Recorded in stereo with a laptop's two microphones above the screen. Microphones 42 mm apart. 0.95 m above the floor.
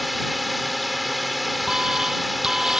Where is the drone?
Centre (ahead or behind).